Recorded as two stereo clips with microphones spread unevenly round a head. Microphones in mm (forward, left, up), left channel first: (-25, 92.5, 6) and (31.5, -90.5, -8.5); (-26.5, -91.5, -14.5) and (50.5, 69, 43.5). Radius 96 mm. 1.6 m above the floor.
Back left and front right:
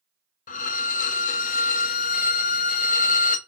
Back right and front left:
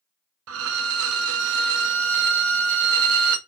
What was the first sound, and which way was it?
A violin, 55° left.